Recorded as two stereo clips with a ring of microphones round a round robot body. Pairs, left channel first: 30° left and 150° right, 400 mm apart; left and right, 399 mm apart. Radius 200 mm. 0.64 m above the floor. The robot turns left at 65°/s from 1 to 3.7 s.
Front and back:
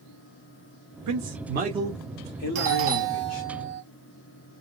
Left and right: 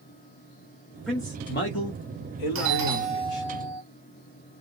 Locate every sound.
1.1 s a man speaking: straight behind, 1.0 m; by 3.5 s 25° left, 1.0 m
2.5 s a doorbell: 110° right, 1.1 m; by 3.8 s 175° left, 1.1 m